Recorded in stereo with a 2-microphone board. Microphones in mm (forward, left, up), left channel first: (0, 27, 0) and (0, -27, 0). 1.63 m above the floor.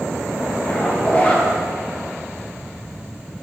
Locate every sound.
0.6 s a zipper: 30° left (ahead or behind), 1.5 m